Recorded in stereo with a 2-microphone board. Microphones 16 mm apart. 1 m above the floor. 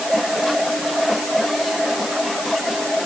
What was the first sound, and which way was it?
Only background noise.